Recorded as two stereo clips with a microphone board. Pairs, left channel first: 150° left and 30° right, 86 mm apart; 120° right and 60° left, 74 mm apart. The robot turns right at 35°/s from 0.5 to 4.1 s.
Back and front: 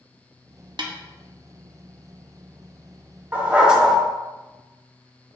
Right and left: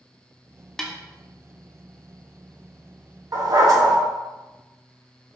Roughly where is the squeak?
I don't hear a squeak.